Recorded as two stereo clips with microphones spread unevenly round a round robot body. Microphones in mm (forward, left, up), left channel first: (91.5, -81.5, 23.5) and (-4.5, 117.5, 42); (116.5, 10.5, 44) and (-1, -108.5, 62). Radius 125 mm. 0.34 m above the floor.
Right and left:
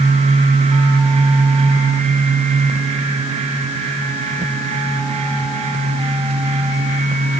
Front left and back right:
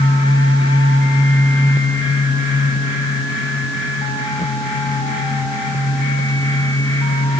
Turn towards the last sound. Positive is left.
No sound to turn to.